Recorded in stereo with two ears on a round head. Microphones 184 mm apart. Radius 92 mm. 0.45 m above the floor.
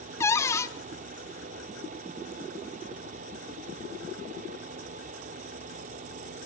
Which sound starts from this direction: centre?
A cupboard door, at 0.2 s.